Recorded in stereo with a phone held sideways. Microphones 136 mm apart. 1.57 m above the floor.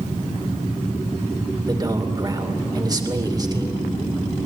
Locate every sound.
1.6 s a man speaking: 30° right (ahead or behind), 2.5 m